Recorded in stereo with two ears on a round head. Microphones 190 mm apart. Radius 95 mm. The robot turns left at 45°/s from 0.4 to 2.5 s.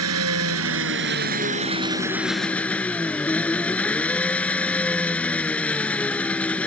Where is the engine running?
90° right; by 6.7 s 175° left.